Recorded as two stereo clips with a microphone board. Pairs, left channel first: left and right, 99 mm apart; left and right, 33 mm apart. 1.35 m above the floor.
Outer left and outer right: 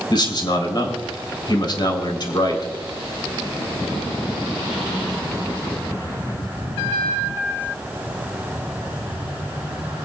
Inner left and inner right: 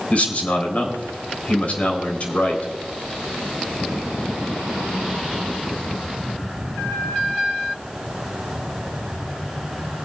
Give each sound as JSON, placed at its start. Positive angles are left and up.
{"t": 0.1, "sound": "a man speaking", "side_deg": 45, "distance_m": 3.5}